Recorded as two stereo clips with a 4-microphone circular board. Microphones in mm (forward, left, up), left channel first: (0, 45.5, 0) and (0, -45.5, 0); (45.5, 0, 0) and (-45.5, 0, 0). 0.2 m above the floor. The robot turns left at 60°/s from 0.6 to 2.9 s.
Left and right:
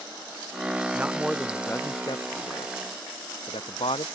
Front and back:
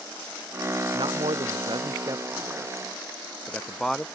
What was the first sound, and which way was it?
A man speaking, 160° right.